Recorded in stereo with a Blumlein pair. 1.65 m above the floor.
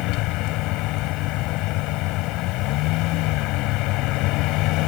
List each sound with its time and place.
0.0 s a vehicle: 40° left